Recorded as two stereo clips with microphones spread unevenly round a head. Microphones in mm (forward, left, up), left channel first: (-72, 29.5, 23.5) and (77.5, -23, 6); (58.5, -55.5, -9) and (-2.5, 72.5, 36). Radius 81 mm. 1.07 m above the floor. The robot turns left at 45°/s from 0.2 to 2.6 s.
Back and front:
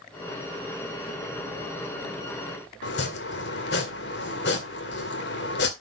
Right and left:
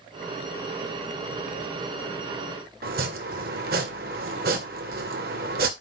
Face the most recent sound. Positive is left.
turn(degrees=145)